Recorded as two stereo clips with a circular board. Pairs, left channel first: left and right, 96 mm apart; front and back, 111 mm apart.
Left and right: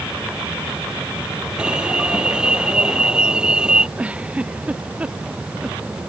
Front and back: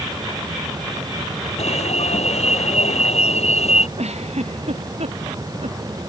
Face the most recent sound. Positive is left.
turn(degrees=-165)